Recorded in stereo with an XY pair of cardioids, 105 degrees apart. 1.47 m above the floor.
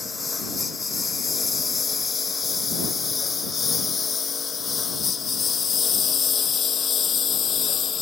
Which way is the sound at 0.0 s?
25° left.